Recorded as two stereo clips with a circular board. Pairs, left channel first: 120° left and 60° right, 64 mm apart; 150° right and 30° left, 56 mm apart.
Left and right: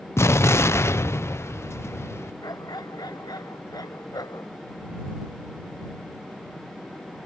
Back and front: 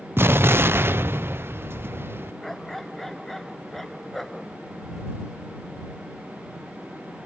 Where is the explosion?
75° left.